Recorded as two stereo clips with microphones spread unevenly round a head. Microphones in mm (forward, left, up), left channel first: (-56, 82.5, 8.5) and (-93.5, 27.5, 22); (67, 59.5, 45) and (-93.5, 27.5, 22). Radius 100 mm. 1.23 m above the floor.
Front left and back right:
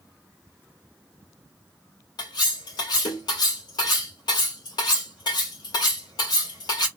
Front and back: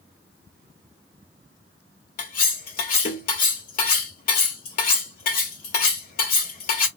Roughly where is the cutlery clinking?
Ahead left.